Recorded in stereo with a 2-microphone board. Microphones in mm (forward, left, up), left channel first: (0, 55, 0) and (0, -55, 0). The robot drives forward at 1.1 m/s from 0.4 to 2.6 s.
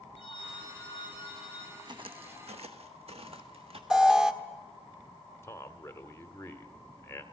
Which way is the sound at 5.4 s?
20° left (ahead or behind).